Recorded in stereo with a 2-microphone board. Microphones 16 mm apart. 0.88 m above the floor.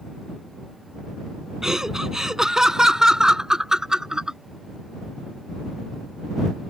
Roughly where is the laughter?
Right.